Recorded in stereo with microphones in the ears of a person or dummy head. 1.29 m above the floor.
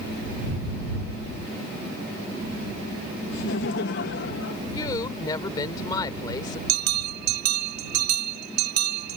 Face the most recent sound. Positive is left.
turn(degrees=-60)  # may be behind; listen again after turning